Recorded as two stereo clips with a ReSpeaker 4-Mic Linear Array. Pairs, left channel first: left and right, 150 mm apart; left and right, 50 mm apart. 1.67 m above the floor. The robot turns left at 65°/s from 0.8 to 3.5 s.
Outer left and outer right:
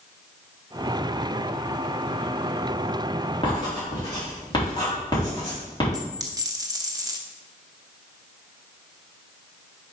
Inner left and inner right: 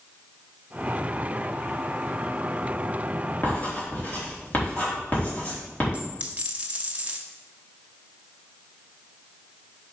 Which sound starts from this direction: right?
A dropped coin, at 5.9 s.